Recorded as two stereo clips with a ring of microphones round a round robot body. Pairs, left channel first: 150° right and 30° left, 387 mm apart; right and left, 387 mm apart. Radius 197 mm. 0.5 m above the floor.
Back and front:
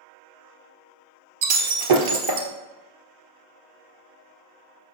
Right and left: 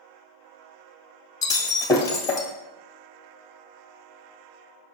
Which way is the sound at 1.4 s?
10° right.